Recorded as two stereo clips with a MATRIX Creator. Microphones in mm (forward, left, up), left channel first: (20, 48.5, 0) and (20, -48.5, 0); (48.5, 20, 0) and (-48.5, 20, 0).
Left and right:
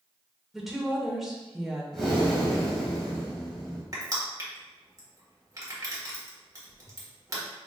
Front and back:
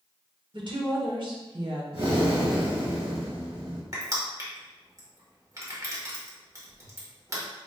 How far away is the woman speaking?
About 1.2 m.